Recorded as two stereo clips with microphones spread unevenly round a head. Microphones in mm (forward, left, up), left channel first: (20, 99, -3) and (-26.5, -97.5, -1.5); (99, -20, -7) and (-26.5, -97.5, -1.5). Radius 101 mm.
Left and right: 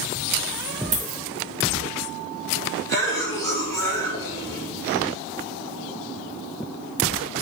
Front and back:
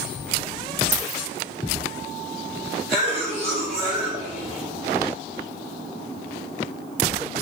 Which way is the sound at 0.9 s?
80° right.